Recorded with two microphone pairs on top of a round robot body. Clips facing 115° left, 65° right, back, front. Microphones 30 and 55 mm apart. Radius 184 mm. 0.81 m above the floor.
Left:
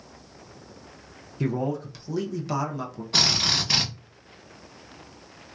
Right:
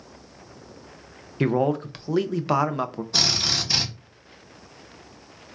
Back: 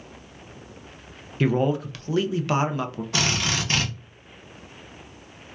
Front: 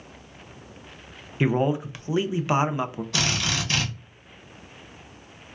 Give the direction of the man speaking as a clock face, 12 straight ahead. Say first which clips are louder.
Right 5 dB, back 1 dB; 2 o'clock.